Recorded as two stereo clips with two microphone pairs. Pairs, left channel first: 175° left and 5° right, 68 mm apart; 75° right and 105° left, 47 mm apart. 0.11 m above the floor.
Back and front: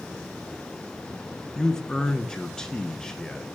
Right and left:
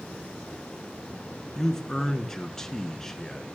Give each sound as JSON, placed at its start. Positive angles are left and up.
{"t": 1.6, "sound": "a man speaking", "azimuth_deg": -130, "distance_m": 1.1}